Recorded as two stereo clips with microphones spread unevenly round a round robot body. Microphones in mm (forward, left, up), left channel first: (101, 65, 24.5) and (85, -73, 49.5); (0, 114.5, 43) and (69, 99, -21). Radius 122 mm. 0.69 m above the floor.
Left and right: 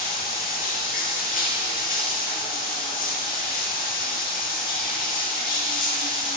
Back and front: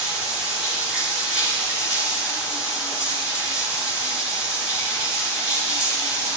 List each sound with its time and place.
0.0 s running water: 70° left, 5 m